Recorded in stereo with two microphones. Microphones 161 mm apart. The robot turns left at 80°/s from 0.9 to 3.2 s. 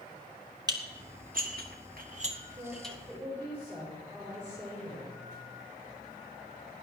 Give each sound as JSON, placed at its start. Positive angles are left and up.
{"t": 0.7, "sound": "dishes clattering", "side_deg": -25, "distance_m": 1.6}
{"t": 2.6, "sound": "a woman speaking", "azimuth_deg": -140, "distance_m": 6.0}